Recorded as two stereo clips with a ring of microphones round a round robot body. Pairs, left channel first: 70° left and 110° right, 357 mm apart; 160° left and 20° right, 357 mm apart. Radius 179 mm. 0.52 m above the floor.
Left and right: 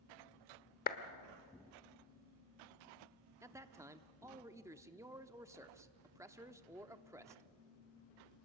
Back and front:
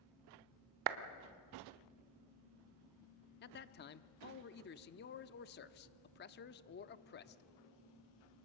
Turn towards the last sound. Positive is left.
turn(degrees=175)